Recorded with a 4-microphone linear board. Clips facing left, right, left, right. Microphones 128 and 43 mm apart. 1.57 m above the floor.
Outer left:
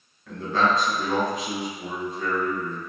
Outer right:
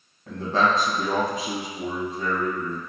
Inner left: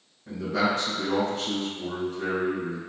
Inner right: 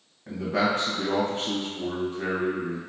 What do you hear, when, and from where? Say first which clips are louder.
0.3 s a man speaking: outer right 1 dB, inner right 1 dB; 35° right (ahead or behind), 1.9 m